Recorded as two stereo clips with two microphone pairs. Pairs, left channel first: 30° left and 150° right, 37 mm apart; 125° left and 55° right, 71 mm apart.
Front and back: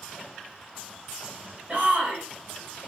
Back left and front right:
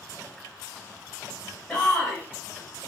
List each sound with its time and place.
1.7 s a shout: straight behind, 1.5 m